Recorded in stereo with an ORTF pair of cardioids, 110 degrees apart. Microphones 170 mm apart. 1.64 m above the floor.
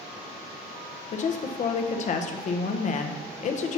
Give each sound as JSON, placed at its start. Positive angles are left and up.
{"t": 1.1, "sound": "a woman speaking", "azimuth_deg": 45, "distance_m": 0.8}